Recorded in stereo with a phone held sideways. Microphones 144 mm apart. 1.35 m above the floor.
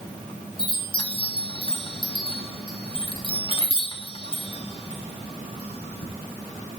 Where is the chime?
35° left (ahead or behind), 1.0 m.